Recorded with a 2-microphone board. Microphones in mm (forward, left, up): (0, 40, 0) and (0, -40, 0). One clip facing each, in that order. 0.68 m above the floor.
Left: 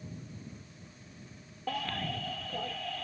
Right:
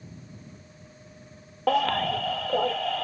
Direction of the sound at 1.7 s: 75° right (ahead or behind).